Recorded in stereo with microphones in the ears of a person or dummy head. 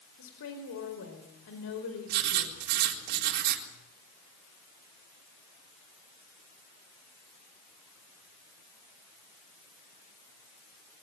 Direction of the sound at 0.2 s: 90° left.